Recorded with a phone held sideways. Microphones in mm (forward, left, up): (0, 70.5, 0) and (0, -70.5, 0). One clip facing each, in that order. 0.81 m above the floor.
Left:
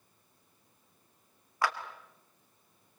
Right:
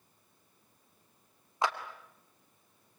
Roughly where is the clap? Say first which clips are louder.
Even; right.